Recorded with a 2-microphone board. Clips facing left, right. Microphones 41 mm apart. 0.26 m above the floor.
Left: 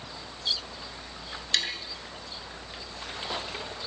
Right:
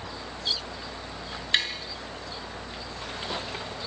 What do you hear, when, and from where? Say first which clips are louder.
1.5 s tapping: right 3 dB; 25° right (ahead or behind), 4.5 m